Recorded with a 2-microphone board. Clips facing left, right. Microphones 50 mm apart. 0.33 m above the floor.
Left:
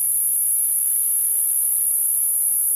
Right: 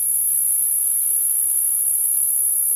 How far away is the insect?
About 1.1 m.